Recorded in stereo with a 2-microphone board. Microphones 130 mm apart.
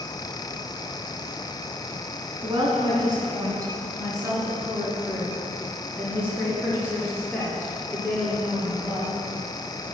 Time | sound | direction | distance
2.4 | a woman speaking | 35° right (ahead or behind) | 2.5 m